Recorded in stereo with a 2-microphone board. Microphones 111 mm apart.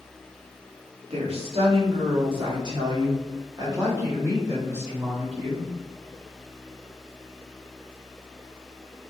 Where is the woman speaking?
70° right (ahead or behind), 2 m; by 5.7 s 15° right (ahead or behind), 4.5 m.